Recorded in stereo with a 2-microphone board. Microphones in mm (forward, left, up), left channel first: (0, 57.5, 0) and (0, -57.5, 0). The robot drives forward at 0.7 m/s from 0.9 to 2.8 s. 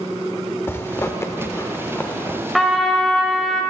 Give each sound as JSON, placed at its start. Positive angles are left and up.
{"t": 0.7, "sound": "a zipper", "side_deg": 20, "distance_m": 0.6}
{"t": 2.5, "sound": "a trumpet", "side_deg": 0, "distance_m": 1.1}